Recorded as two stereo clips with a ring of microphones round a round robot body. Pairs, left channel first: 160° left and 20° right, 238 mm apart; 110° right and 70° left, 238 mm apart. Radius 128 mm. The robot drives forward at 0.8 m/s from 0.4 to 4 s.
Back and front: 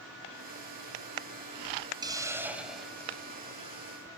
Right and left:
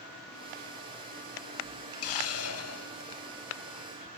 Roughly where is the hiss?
Right.